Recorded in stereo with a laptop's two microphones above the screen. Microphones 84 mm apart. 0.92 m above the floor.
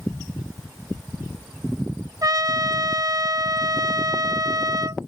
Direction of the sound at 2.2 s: 45° right (ahead or behind).